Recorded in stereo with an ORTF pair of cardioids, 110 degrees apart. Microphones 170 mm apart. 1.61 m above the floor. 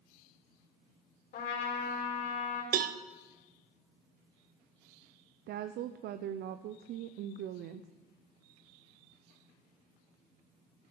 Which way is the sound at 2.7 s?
55° right.